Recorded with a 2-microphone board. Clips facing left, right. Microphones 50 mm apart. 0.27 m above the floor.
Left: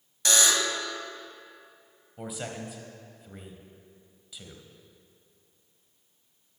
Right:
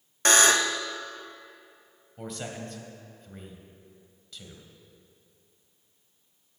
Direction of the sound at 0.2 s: 45° right (ahead or behind).